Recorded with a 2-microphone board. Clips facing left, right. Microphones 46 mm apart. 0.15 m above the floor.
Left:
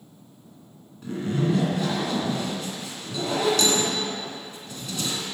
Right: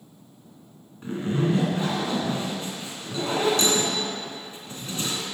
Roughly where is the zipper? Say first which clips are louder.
Even; right.